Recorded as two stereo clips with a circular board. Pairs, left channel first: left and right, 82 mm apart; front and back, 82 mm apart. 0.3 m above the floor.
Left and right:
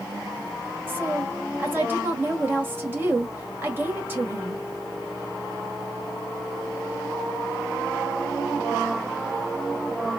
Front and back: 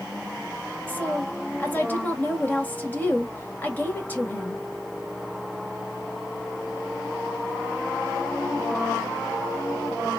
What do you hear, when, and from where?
0.9 s a woman speaking: 50° right, 1.4 m